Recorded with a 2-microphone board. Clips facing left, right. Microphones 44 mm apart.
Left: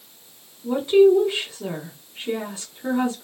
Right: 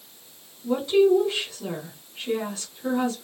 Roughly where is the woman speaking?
Left.